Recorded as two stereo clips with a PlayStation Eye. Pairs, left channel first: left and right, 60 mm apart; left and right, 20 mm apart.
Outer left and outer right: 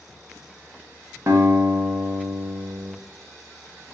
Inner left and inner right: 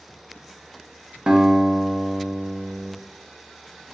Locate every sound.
1.3 s a guitar: 60° right (ahead or behind), 0.6 m